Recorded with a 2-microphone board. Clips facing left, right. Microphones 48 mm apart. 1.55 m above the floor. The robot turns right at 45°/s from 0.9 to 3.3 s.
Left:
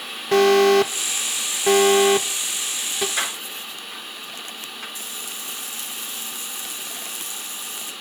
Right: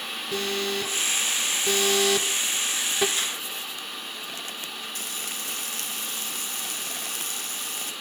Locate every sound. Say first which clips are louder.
0.3 s an alarm: left 15 dB; 70° left (ahead or behind), 1.3 m; by 3.1 s 5° right (ahead or behind), 1.3 m
3.2 s a door slam: left 3 dB; 75° left (ahead or behind), 3.5 m; by 4.8 s 70° left (ahead or behind), 3.5 m
5.0 s frying: even; 60° right (ahead or behind), 2.5 m